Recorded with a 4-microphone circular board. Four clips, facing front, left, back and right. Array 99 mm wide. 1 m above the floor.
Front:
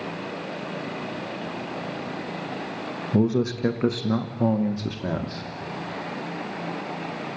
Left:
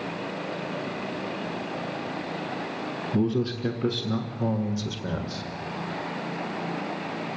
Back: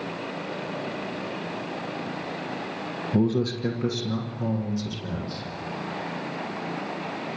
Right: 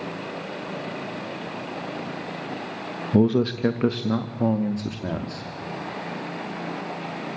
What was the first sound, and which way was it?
A man speaking, 80° right.